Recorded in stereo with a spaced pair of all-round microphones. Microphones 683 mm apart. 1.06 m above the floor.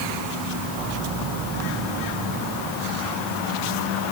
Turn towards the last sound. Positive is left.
No sound to turn to.